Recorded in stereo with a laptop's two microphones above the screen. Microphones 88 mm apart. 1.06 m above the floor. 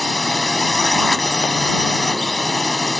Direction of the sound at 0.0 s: Centre (ahead or behind).